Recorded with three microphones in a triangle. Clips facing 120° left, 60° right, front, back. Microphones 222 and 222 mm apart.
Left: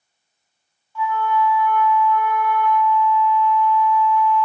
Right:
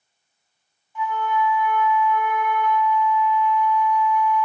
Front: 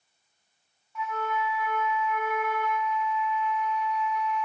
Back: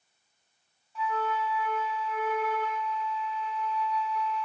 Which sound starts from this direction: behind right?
A flute, at 0.9 s.